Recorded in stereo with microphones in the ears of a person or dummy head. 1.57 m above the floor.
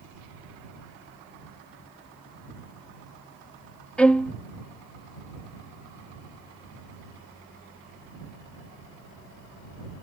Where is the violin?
5° left (ahead or behind).